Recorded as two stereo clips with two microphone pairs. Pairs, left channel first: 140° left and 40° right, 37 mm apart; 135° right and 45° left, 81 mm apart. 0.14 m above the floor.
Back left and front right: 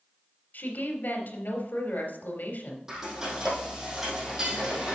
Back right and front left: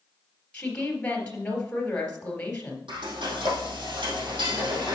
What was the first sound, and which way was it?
A woman speaking, 150° left.